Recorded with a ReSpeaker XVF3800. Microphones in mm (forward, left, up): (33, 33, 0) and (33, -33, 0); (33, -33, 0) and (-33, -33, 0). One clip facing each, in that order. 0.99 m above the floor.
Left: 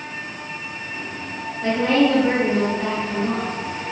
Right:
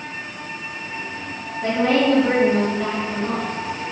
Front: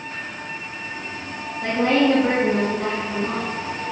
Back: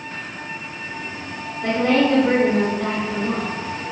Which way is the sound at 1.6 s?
20° right.